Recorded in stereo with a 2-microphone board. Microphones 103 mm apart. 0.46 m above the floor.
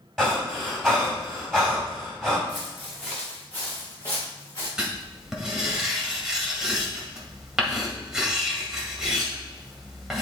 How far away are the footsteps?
About 3 m.